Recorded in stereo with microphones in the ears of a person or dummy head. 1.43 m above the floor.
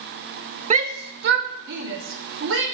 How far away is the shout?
About 0.5 m.